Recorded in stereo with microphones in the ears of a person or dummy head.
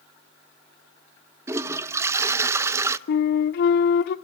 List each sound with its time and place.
1.5 s a toilet flushing: 5° right (ahead or behind), 0.7 m
3.1 s a flute: 55° left (ahead or behind), 1.0 m